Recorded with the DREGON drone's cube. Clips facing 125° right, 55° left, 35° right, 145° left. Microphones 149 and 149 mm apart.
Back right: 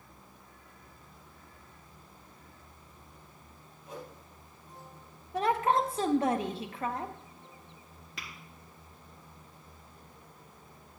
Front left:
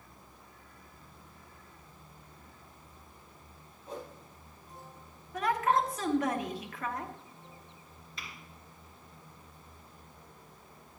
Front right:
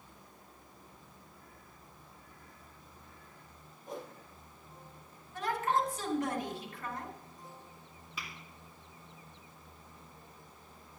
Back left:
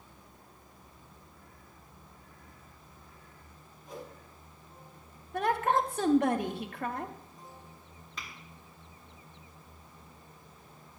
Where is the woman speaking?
175° left, 0.9 m.